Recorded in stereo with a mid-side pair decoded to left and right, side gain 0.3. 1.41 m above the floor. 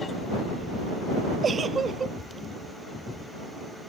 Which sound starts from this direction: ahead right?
A giggle, at 1.4 s.